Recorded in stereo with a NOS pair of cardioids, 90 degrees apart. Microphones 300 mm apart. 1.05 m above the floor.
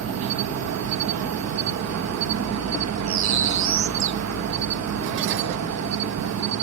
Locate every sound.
0.0 s an insect: 65° right
3.1 s a bird: 70° right